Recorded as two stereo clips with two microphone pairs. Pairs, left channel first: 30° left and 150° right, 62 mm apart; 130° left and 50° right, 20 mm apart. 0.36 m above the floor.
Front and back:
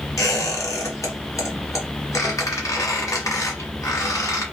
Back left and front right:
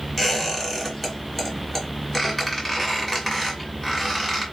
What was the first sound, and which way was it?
A squeak, 50° left.